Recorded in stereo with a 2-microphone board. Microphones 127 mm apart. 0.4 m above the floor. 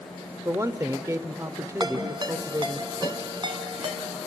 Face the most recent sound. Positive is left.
turn(degrees=-40)  # may be behind; listen again after turning